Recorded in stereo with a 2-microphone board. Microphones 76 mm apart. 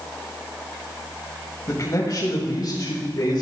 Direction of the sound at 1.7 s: 45° left (ahead or behind).